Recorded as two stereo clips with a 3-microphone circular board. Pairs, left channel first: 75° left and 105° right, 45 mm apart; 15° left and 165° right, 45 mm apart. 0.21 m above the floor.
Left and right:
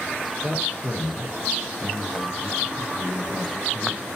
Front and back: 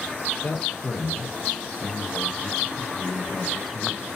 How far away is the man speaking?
About 4.5 m.